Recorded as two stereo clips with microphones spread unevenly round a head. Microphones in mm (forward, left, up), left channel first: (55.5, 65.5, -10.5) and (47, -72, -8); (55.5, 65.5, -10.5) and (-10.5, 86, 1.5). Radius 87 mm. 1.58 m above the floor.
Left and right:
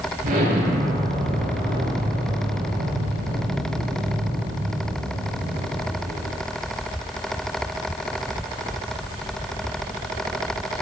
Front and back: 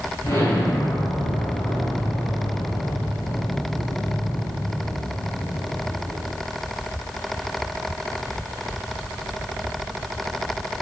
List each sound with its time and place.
0.2 s an explosion: 85° right, 7 m